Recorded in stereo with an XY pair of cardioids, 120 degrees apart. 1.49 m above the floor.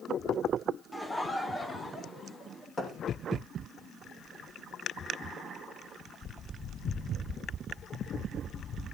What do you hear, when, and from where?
0.9 s laughter: 5° left, 1.4 m; by 2.7 s 20° left, 4 m
2.8 s a thud: 25° left, 6 m